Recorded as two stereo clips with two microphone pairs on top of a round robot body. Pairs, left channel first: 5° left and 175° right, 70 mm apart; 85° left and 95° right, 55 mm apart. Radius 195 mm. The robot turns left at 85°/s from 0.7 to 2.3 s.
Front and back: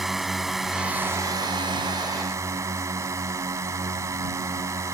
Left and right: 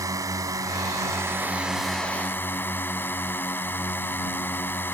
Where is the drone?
90° right; by 5.0 s 135° left.